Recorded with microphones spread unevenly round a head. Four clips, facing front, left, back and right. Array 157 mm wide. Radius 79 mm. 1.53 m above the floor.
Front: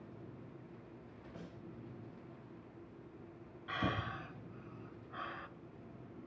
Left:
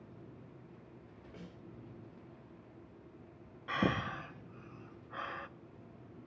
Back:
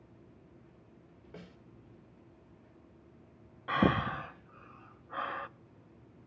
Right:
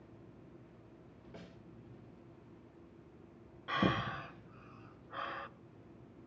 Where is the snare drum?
175° left, 5 m.